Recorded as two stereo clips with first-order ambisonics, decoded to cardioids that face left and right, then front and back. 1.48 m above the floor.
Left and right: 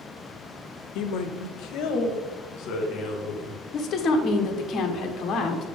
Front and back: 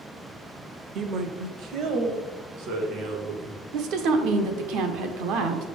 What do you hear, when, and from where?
0.9 s a man speaking: 120° left, 0.6 m; by 3.6 s 135° left, 2.5 m
3.7 s a woman speaking: 150° left, 1.1 m